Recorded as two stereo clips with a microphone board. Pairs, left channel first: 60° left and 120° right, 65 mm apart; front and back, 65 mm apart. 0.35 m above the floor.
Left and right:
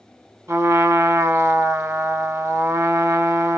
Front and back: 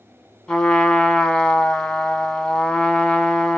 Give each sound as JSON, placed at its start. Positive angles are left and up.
{"t": 0.5, "sound": "a trumpet", "azimuth_deg": -80, "distance_m": 0.8}